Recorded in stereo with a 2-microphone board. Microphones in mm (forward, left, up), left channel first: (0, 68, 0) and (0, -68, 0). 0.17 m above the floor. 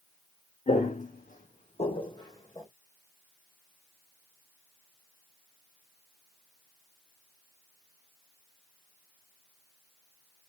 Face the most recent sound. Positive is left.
turn(degrees=20)  # may be behind; listen again after turning